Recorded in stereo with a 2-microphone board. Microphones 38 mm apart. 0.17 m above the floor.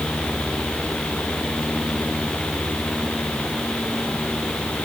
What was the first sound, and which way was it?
Only background noise.